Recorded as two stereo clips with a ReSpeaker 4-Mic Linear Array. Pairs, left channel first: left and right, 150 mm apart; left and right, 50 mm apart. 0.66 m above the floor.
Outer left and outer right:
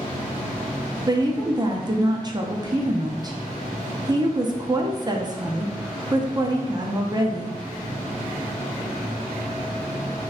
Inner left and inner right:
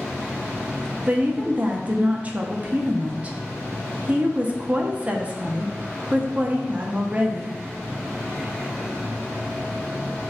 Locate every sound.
1.1 s a woman speaking: 25° right (ahead or behind), 0.5 m